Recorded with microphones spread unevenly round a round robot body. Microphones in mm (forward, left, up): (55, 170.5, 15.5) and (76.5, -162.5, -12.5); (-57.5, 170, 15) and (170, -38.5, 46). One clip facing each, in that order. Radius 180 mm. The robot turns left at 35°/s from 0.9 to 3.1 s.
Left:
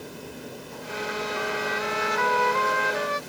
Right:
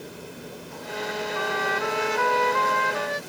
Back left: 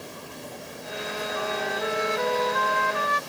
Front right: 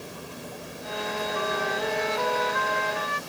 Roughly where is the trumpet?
Behind right.